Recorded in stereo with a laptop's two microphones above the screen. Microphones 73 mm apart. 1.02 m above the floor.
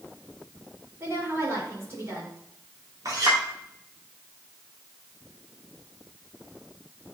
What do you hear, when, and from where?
1.0 s a woman speaking: 35° right (ahead or behind), 3.5 m
3.0 s a clink: 55° right (ahead or behind), 2.0 m